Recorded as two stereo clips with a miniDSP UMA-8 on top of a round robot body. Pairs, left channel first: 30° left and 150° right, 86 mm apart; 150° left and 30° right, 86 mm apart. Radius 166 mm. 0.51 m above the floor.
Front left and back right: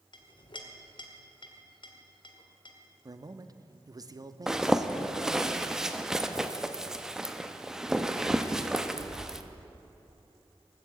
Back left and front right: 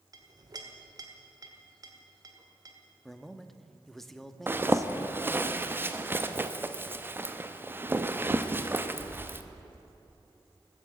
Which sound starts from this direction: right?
A zipper, at 4.5 s.